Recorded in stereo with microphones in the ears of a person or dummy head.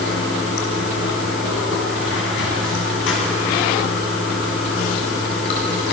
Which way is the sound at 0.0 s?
65° left (ahead or behind).